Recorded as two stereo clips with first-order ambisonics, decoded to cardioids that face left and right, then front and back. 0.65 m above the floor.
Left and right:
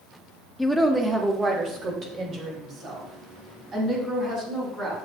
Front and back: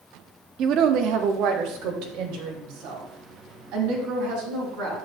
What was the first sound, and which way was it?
A woman speaking, 175° left.